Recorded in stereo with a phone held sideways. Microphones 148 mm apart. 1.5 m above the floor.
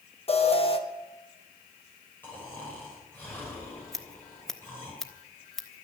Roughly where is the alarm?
Left.